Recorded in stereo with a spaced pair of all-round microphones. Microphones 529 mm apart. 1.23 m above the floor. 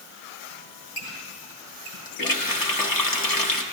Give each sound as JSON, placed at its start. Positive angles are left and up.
{"t": 0.5, "sound": "a squeak", "side_deg": 65, "distance_m": 2.5}
{"t": 2.2, "sound": "a running tap", "side_deg": 40, "distance_m": 0.8}